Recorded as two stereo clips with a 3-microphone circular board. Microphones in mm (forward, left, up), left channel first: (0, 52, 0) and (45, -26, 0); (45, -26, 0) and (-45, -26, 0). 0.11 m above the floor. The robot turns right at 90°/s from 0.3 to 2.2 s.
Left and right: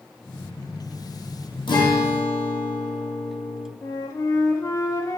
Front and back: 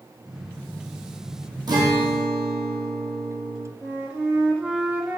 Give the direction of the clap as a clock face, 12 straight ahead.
No clap in this recording.